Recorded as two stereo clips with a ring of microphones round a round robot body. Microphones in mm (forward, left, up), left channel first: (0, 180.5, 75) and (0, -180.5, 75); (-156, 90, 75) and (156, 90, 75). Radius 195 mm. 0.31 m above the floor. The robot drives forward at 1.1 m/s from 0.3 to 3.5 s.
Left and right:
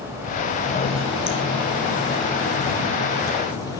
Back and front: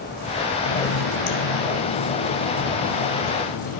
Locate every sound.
0.6 s a running tap: 160° left, 3 m; by 3.8 s 170° left, 6.5 m